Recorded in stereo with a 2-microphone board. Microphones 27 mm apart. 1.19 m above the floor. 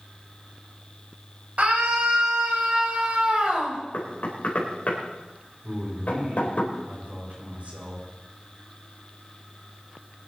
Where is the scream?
60° right (ahead or behind), 5.5 m; by 3.8 s 45° right (ahead or behind), 5 m.